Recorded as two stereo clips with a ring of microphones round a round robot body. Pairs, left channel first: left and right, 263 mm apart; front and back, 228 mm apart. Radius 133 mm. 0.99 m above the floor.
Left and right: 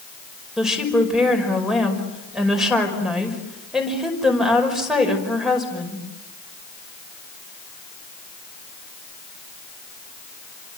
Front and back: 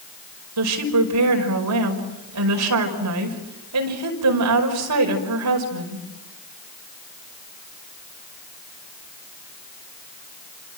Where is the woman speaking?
Straight behind, 5.5 m.